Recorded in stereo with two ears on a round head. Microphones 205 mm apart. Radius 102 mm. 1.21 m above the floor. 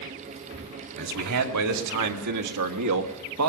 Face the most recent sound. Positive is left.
turn(degrees=-70)  # may be behind; listen again after turning